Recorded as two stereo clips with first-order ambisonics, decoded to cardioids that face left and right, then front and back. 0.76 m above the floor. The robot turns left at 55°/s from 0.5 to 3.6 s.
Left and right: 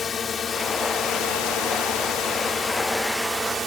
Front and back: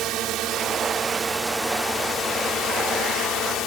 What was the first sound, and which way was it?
A drone, 150° left.